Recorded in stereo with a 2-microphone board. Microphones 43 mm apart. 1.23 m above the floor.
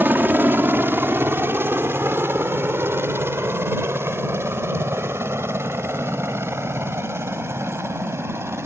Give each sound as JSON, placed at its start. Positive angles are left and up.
{"t": 0.0, "sound": "a helicopter", "side_deg": -50}